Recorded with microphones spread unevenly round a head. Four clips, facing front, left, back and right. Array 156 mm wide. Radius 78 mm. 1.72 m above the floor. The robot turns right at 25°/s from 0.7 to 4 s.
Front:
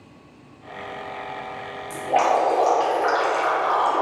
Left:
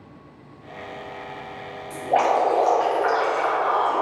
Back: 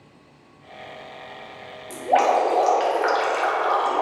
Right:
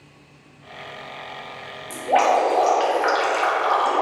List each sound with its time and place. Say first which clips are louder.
1.9 s dripping: right 2 dB, back 1 dB; 155° right, 0.6 m; by 4.0 s 105° right, 0.6 m